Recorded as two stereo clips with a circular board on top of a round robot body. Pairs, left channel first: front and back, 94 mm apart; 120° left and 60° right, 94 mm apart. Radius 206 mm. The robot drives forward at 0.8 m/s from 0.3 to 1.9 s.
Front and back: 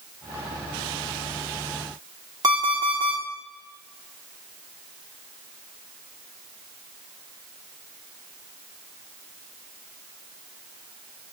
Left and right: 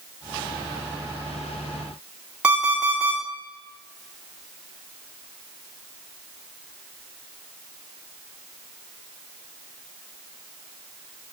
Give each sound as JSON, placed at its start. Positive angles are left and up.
{"t": 2.4, "sound": "an alarm clock", "azimuth_deg": -135, "distance_m": 2.0}